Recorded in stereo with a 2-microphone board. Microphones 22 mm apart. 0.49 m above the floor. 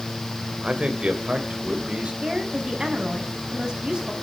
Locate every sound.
0.6 s a man speaking: 50° right (ahead or behind), 2 m; by 2.1 s 60° right (ahead or behind), 3 m
2.2 s a woman speaking: 35° right (ahead or behind), 5 m